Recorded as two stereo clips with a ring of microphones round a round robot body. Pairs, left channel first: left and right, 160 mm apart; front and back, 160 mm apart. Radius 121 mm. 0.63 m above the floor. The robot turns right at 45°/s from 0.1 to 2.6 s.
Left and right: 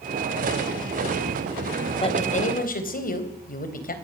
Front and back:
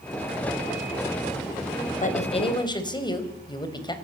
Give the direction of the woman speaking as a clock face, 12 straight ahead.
11 o'clock.